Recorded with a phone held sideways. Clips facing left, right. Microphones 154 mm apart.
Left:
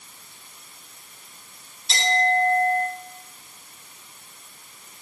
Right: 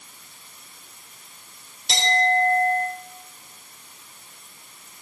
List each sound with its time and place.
1.9 s a clink: 85° right, 4.5 m